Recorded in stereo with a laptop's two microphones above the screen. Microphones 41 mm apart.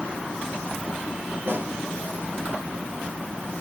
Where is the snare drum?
70° right (ahead or behind), 3.5 m.